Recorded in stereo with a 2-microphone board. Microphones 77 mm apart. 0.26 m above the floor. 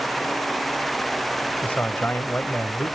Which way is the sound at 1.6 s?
20° left (ahead or behind).